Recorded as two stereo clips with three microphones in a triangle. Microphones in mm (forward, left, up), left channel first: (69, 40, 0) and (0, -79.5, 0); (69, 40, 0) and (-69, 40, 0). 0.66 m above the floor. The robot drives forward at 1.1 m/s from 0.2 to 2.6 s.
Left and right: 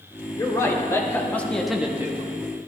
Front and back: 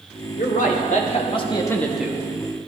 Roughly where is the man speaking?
Ahead.